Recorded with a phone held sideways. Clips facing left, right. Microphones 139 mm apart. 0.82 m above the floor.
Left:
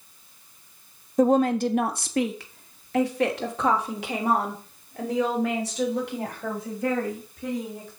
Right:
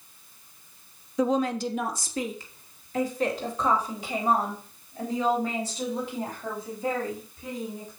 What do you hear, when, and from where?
1.2 s a woman speaking: 45° left (ahead or behind), 1.0 m; by 7.9 s 75° left (ahead or behind), 6 m